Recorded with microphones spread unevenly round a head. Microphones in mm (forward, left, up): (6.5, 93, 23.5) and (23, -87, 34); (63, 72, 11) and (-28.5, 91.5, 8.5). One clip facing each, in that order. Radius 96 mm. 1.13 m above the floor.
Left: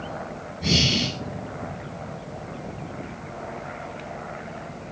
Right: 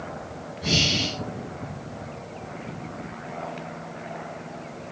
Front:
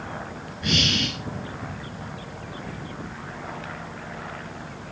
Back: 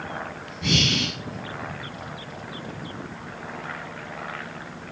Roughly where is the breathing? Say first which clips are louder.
Left 2 dB, back 1 dB; behind.